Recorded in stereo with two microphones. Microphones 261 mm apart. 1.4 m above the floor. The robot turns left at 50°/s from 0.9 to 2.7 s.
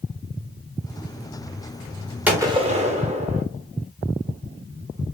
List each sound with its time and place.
2.3 s a gunshot: 5° right (ahead or behind), 0.8 m; by 3.4 s 25° right (ahead or behind), 0.8 m